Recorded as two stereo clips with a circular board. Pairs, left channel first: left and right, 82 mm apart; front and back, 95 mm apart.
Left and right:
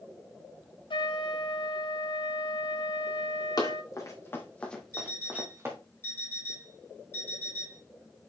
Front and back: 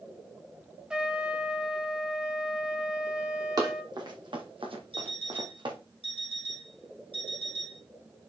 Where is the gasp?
I don't hear a gasp.